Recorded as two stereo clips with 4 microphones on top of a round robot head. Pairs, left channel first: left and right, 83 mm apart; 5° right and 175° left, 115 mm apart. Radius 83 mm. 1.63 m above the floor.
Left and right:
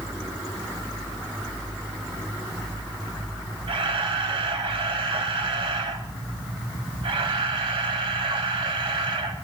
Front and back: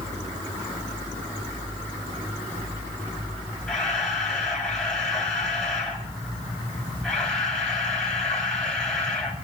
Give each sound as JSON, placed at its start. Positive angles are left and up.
{"t": 3.7, "sound": "a camera shutter", "azimuth_deg": -90, "distance_m": 4.5}